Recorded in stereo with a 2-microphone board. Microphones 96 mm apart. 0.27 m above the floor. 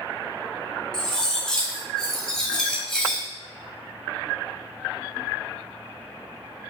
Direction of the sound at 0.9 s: 5° left (ahead or behind).